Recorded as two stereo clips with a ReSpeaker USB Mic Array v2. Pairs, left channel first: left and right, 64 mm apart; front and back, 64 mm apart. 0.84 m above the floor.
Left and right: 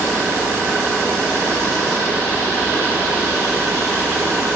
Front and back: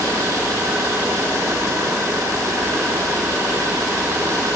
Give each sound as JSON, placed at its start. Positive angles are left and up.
{"t": 0.0, "sound": "an engine running", "azimuth_deg": -145, "distance_m": 10.0}